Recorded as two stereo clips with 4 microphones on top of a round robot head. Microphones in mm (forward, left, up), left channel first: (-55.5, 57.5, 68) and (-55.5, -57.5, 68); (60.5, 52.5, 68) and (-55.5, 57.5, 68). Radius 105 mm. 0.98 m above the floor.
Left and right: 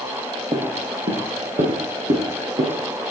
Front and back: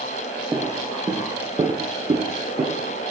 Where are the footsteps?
115° right, 1.1 m; by 2.8 s 125° right, 3 m.